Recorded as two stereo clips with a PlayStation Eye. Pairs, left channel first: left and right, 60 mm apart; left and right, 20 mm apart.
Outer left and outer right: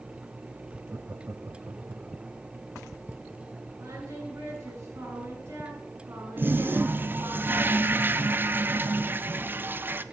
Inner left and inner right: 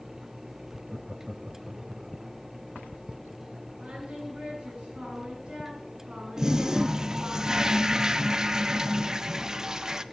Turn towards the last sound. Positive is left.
turn(degrees=-35)  # may be behind; listen again after turning